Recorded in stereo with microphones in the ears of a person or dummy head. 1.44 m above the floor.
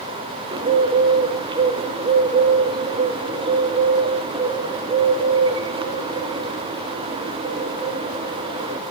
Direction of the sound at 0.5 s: 30° right (ahead or behind).